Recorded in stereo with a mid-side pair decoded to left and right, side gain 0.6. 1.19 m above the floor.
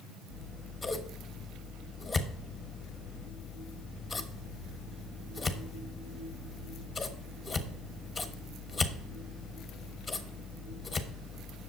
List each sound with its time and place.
0.3 s scissors: 20° left, 1.1 m